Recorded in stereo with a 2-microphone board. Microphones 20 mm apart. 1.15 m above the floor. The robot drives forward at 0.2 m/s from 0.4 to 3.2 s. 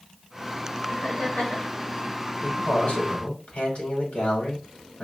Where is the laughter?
80° left, 2.5 m.